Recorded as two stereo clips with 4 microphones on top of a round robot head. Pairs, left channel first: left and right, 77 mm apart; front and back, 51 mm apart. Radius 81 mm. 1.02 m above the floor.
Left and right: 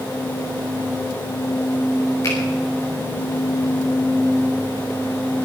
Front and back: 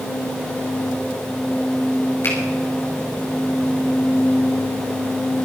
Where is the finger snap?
35° left, 5.5 m.